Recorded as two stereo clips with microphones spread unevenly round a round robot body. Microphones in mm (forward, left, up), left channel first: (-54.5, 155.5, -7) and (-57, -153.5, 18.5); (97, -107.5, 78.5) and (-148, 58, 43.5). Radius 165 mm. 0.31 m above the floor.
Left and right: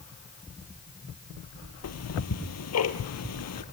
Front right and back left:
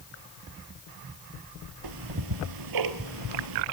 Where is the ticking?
130° left, 1.9 m.